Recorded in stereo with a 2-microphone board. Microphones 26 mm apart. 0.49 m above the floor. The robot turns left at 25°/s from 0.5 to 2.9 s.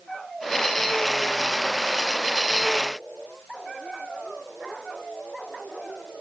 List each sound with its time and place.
Only background noise.